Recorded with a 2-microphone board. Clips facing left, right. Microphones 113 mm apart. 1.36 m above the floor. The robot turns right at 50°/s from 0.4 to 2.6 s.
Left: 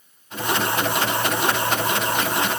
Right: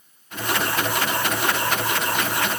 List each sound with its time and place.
Only background noise.